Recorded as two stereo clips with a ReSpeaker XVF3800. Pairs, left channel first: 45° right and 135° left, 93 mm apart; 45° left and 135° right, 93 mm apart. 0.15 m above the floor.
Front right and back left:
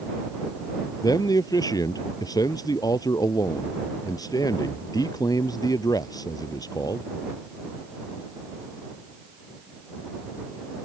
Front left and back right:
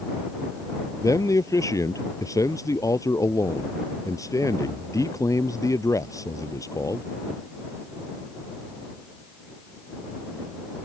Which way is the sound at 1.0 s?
5° right.